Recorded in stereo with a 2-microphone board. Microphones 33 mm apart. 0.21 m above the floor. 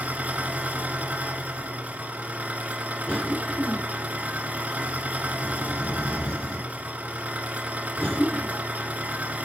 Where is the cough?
40° left (ahead or behind), 2 m.